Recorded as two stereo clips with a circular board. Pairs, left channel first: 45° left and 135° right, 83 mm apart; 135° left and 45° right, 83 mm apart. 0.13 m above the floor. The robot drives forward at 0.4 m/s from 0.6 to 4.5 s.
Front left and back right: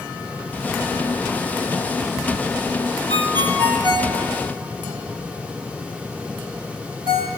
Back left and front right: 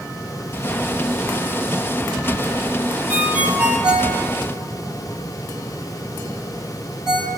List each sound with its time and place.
3.1 s a ringtone: 110° right, 1.4 m; by 7.3 s 130° right, 1.7 m